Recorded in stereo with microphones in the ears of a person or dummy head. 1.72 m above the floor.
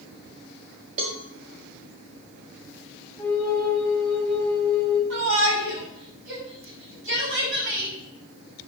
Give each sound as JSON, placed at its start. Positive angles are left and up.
{"t": 1.0, "sound": "a cowbell", "side_deg": -35, "distance_m": 1.8}
{"t": 3.2, "sound": "a flute", "side_deg": 5, "distance_m": 4.5}
{"t": 5.1, "sound": "a shout", "side_deg": -75, "distance_m": 6.0}